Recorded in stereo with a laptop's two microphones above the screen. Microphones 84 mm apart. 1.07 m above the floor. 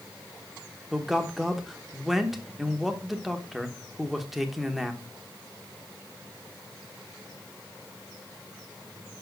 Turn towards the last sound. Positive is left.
turn(degrees=0)  # may be behind; listen again after turning